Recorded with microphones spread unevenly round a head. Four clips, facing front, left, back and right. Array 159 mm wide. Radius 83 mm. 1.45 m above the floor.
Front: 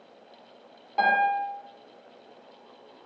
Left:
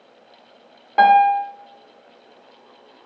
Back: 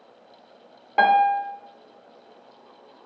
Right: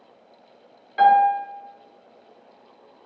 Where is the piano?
125° left, 1.6 m.